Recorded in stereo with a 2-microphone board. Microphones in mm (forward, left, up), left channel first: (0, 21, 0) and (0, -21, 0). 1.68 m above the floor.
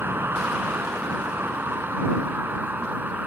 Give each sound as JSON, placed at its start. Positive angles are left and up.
{"t": 0.0, "sound": "a vehicle", "side_deg": -55}